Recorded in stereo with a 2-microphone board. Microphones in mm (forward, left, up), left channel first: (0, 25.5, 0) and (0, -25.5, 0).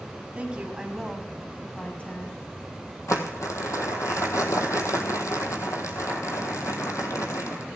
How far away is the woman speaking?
About 1.5 m.